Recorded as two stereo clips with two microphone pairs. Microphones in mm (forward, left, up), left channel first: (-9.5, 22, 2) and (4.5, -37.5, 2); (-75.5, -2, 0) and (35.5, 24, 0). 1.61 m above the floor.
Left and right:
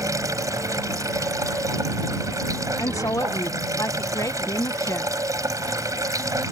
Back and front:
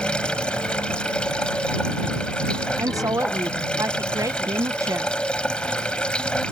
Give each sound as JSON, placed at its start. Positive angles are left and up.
{"t": 0.0, "sound": "running water", "azimuth_deg": -85}
{"t": 2.8, "sound": "a woman speaking", "azimuth_deg": 75}